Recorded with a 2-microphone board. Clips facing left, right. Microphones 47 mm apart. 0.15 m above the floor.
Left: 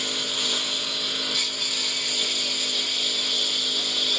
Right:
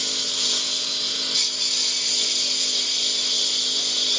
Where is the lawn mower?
15° left (ahead or behind); by 4.2 s 10° left (ahead or behind).